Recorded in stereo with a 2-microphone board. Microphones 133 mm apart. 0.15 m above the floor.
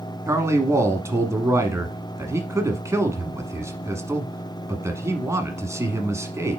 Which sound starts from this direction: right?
A man speaking, at 0.3 s.